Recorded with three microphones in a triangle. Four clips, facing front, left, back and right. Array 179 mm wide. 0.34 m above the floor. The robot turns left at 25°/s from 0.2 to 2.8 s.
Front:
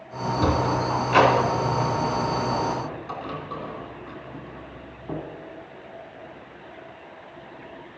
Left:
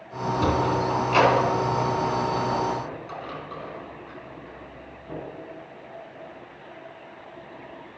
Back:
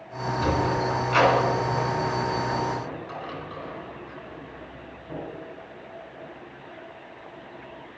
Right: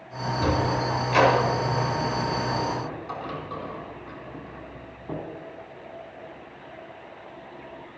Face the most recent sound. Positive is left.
turn(degrees=-30)